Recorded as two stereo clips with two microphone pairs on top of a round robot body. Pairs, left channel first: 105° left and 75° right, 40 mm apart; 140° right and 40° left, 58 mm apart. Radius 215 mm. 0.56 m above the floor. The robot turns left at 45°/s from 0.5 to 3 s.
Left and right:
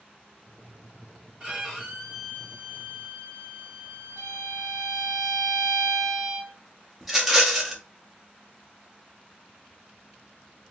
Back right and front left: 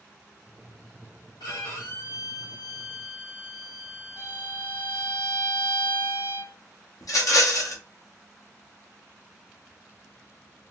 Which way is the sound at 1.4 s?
140° right.